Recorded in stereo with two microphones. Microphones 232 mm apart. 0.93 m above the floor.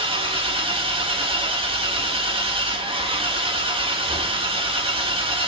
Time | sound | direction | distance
0.0 | an engine running | 25° right (ahead or behind) | 1.9 m